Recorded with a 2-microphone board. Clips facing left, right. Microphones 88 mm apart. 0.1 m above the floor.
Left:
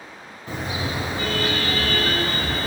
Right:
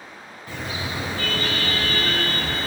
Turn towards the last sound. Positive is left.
turn(degrees=25)  # may be behind; listen again after turning